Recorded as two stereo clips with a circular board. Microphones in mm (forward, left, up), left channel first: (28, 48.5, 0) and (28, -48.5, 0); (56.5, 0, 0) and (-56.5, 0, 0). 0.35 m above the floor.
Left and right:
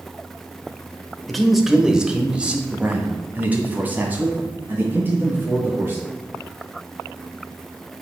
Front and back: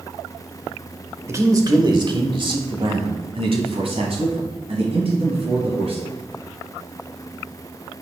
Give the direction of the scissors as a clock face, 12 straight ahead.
I don't hear scissors.